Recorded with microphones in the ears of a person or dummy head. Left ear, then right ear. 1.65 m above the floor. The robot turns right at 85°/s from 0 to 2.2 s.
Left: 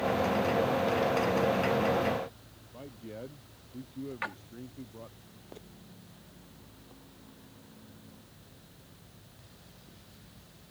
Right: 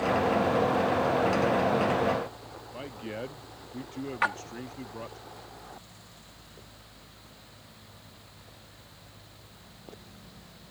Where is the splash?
20° right (ahead or behind).